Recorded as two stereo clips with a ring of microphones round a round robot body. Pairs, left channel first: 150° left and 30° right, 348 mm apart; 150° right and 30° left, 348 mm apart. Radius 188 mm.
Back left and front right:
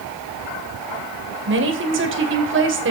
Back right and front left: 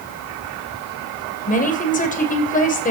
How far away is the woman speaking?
About 2.5 m.